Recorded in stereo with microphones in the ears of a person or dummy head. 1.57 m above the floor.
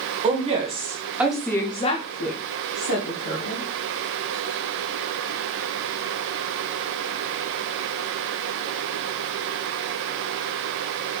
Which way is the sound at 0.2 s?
35° right (ahead or behind).